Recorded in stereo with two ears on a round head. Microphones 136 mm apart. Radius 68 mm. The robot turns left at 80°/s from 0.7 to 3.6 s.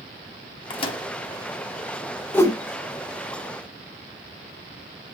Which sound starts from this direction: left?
A microwave, at 0.7 s.